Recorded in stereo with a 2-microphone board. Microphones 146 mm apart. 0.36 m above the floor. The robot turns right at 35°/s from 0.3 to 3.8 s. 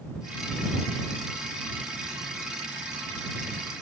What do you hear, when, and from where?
Only background noise.